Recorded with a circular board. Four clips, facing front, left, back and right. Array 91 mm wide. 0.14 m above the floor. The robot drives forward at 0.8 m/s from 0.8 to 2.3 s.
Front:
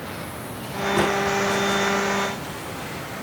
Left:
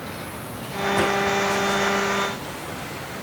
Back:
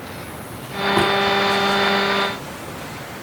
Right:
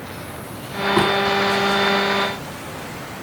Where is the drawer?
105° right, 7 m.